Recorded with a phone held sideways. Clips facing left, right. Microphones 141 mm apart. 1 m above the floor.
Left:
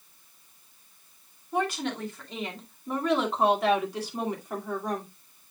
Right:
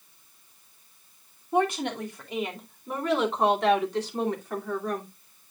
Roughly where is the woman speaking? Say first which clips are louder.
Right 4 dB; right.